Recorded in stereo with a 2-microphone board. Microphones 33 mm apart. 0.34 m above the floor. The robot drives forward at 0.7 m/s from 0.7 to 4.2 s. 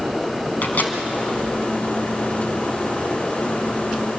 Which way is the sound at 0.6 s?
60° left (ahead or behind).